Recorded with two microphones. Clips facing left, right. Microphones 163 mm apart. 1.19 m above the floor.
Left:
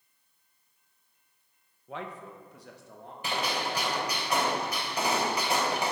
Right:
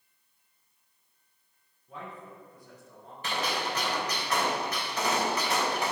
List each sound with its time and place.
1.9 s a man speaking: 75° left (ahead or behind), 0.7 m; by 3.1 s 65° left (ahead or behind), 1.3 m
3.2 s a gunshot: 15° left (ahead or behind), 2.5 m